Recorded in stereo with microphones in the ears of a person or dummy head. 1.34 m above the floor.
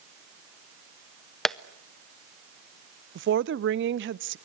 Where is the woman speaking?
55° right (ahead or behind), 0.6 m.